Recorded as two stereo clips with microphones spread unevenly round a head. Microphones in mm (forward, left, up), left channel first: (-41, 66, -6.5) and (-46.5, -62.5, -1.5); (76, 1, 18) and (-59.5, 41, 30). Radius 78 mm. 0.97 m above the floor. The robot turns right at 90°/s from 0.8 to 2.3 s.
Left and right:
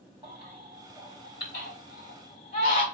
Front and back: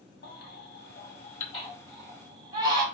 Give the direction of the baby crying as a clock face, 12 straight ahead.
1 o'clock.